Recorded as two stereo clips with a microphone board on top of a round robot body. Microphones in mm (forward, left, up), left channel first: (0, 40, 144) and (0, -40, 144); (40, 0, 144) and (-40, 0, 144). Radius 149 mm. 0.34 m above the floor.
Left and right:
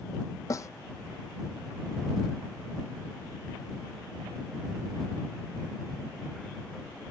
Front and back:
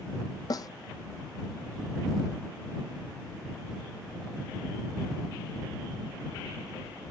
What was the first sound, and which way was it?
A snare drum, 40° left.